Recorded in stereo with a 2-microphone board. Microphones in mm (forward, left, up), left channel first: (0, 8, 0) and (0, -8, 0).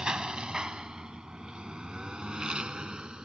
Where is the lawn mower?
65° right (ahead or behind); by 3.2 s 70° right (ahead or behind).